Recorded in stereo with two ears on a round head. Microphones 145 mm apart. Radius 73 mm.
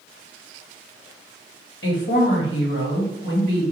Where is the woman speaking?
75° left (ahead or behind), 1.7 m.